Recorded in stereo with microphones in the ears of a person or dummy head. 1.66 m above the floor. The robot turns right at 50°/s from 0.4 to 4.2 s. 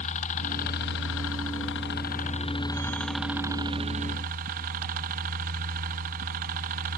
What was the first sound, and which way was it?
A helicopter, 45° left.